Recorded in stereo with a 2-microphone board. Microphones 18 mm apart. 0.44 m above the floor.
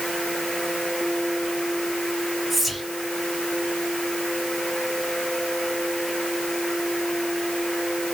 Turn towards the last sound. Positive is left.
turn(degrees=-5)  # may be behind; listen again after turning